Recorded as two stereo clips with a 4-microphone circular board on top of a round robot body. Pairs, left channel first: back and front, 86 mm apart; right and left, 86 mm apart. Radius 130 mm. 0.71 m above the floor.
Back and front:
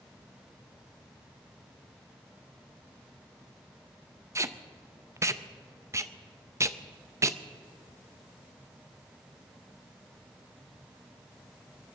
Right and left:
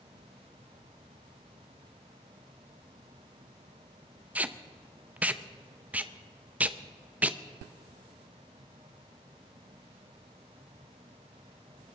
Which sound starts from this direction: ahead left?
Tape being pulled, at 4.3 s.